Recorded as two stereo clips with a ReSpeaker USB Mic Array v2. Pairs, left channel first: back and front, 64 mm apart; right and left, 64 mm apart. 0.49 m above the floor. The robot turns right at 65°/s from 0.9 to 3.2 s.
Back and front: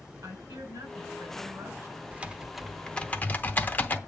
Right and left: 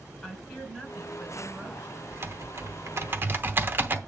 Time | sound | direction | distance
0.2 | a woman speaking | 20° right | 4 m
2.1 | typing on a keyboard | 55° left | 0.8 m